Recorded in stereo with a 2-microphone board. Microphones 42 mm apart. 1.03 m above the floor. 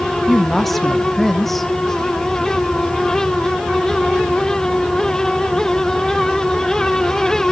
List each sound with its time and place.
0.3 s a woman speaking: 5° left (ahead or behind), 0.8 m